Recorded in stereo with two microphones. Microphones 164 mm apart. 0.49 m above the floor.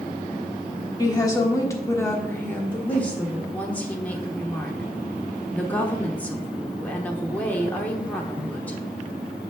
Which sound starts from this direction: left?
A woman speaking, at 1.0 s.